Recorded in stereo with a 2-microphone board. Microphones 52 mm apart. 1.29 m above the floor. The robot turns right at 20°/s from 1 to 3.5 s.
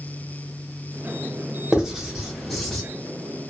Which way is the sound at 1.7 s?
15° right (ahead or behind).